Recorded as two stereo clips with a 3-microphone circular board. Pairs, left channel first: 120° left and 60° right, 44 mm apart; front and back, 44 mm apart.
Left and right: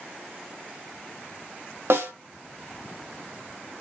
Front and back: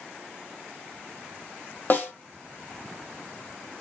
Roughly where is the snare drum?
Ahead right.